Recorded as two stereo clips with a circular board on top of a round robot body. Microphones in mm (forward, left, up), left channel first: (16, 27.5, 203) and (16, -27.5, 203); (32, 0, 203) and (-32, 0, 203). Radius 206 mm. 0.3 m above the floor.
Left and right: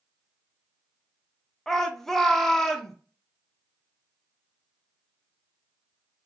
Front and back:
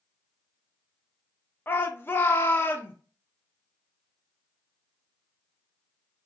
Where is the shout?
15° left, 1.0 m.